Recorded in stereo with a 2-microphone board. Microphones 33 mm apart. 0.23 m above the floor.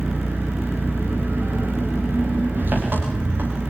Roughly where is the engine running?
Right.